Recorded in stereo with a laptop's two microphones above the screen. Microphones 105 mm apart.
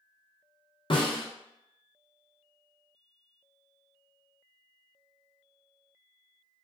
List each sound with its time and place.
0.9 s a snare drum: 55° left (ahead or behind), 0.6 m